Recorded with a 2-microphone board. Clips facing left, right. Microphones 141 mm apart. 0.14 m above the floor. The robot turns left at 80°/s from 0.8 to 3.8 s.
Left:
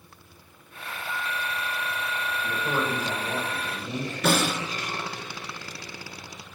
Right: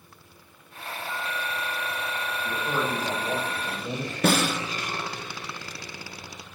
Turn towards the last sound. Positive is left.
turn(degrees=-50)  # may be behind; listen again after turning